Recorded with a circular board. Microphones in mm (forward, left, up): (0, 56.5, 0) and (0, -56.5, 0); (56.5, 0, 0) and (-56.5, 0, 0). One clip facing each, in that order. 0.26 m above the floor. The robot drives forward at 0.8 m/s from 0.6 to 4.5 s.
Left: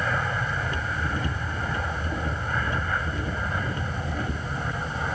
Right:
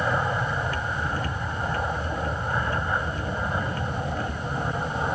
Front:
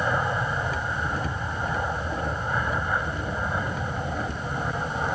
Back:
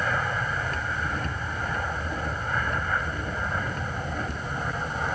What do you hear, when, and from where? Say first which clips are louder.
0.0 s an aircraft: right 3 dB, front 2 dB; 50° right; by 5.2 s 60° right